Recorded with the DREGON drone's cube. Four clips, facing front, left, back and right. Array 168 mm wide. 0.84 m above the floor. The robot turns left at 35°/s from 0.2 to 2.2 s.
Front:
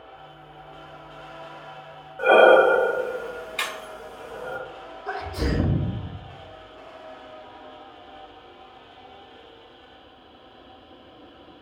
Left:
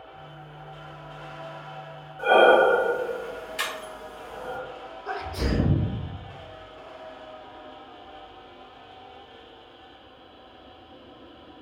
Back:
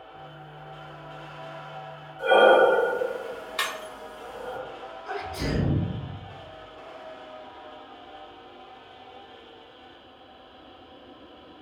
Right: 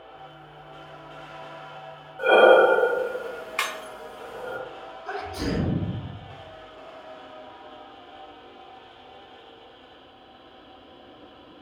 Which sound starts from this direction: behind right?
Breaking glass, at 3.6 s.